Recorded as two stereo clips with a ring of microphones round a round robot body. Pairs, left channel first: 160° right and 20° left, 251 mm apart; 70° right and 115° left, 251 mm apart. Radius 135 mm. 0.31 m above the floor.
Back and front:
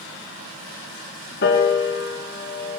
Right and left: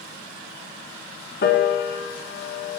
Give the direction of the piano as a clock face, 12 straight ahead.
4 o'clock.